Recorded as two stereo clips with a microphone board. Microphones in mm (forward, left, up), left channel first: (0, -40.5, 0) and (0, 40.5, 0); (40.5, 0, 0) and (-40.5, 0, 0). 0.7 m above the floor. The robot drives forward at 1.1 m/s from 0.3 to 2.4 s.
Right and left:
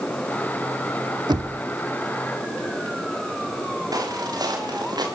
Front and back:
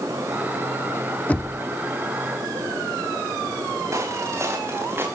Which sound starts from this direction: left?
Knocking, at 1.3 s.